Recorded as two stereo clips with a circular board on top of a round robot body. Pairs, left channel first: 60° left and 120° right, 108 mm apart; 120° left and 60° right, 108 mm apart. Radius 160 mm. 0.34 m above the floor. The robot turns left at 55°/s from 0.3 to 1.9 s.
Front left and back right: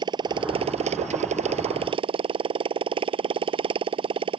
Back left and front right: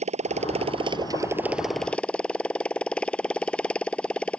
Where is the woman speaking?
No woman speaking in this recording.